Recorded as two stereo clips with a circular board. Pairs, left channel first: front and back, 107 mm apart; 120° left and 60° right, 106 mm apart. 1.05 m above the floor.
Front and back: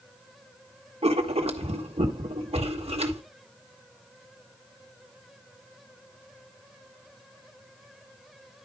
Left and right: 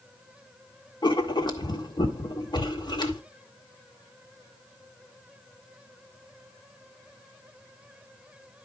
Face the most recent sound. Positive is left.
turn(degrees=165)